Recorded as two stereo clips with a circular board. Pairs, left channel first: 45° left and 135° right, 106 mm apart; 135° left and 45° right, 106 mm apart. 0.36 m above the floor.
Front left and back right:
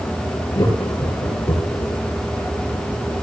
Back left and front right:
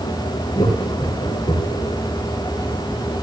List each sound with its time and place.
0.6 s laughter: 100° left, 6.5 m